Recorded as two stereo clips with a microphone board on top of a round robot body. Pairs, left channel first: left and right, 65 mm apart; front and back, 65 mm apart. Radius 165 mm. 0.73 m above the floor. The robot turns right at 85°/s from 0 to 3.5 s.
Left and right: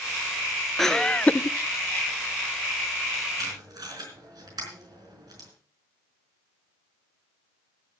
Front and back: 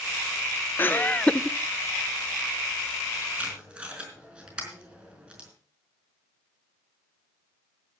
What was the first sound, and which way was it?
Laughter, 5° left.